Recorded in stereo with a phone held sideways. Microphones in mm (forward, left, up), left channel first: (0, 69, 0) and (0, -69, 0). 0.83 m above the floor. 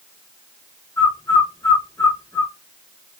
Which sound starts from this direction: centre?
A bird, at 1.0 s.